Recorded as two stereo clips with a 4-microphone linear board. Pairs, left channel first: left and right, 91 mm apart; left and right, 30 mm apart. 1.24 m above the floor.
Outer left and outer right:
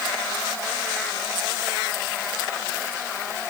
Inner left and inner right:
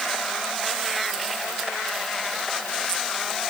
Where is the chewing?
No chewing in this recording.